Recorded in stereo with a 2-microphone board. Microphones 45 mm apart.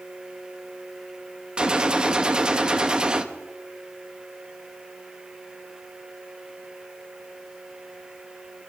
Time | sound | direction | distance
1.6 | a gunshot | 20° right (ahead or behind) | 1.0 m